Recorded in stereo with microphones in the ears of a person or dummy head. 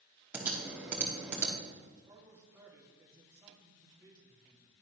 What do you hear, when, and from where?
0.3 s typing on a keyboard: 10° right (ahead or behind), 1.0 m
2.1 s a man speaking: 20° right (ahead or behind), 1.6 m